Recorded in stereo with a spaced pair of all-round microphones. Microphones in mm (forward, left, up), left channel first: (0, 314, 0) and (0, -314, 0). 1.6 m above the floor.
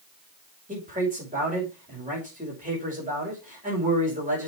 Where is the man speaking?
10° right (ahead or behind), 5.5 m.